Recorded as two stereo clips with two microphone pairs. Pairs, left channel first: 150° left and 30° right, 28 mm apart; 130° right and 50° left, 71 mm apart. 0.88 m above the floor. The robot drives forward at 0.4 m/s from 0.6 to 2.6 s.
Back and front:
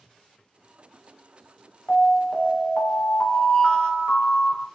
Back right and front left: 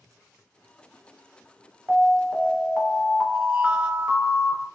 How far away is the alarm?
About 1.3 m.